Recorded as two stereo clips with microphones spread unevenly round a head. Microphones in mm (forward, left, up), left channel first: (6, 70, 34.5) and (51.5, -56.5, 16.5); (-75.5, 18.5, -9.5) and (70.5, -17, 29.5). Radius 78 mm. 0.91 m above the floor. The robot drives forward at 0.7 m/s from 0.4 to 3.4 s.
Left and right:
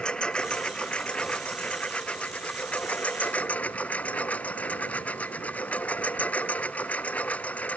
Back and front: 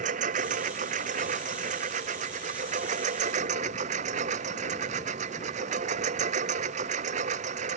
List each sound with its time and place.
0.0 s a lawn mower: 30° left